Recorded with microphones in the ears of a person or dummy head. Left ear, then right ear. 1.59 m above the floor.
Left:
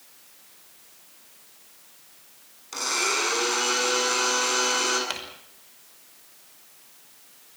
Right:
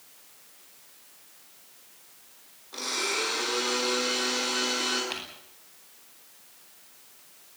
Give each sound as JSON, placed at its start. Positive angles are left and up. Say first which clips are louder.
{"t": 2.7, "sound": "a blender", "louder": "left 4 dB", "side_deg": 75, "distance_m": 9.0}
{"t": 5.1, "sound": "crumpling", "louder": "left 3 dB", "side_deg": 75, "distance_m": 5.5}